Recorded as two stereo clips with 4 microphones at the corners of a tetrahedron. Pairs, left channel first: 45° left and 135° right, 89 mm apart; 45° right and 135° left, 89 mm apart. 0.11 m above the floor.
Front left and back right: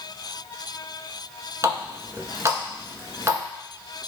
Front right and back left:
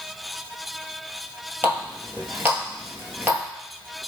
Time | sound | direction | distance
1.6 | a running tap | 170° right | 1.2 m